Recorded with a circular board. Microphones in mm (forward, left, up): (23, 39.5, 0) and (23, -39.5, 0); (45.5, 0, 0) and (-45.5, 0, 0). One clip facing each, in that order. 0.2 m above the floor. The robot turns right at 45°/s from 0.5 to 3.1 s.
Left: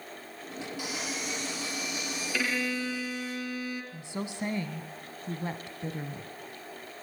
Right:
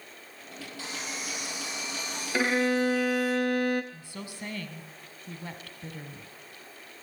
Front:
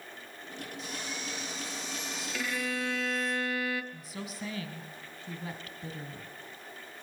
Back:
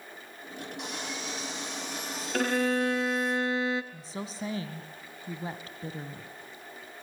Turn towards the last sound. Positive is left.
turn(degrees=140)